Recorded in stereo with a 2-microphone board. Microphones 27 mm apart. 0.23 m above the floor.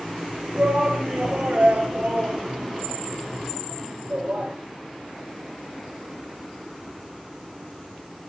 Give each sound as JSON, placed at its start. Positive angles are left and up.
{"t": 0.6, "sound": "a shout", "side_deg": -60, "distance_m": 3.5}